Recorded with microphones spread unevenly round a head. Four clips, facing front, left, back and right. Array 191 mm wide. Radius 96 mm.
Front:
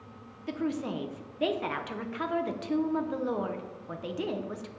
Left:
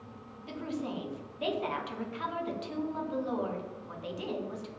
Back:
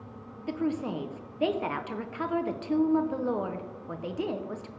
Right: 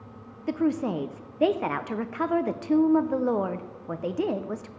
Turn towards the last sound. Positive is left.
turn(degrees=-95)